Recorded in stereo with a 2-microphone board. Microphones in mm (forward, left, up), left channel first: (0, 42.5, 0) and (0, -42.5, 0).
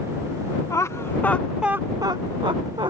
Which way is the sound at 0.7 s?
35° left (ahead or behind).